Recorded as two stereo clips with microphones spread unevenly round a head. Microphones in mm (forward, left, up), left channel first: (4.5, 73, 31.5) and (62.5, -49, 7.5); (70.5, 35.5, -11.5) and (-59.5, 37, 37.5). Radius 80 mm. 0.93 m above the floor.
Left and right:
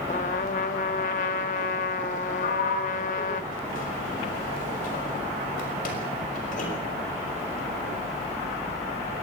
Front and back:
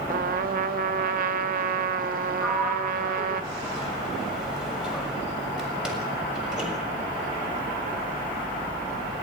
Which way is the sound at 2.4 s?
90° left.